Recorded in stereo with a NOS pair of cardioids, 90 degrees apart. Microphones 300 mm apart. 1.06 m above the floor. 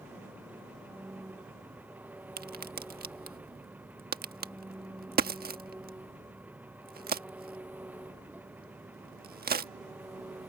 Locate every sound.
0.0 s an engine running: 5° right
2.4 s a crack: 30° right